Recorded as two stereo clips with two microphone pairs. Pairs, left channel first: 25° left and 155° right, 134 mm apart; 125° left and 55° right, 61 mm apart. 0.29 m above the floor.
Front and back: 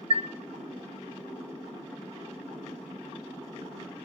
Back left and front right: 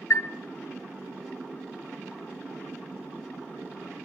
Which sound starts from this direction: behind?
A chime, at 0.1 s.